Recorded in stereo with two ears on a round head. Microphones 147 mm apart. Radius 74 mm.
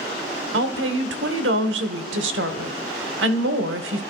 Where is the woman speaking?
85° right, 1.2 m.